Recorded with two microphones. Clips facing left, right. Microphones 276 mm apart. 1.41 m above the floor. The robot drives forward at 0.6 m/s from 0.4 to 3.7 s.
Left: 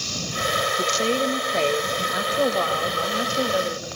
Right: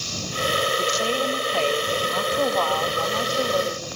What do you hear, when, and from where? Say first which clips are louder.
0.8 s a woman speaking: left 2 dB; 30° left (ahead or behind), 1.5 m; by 3.9 s 15° left (ahead or behind), 3 m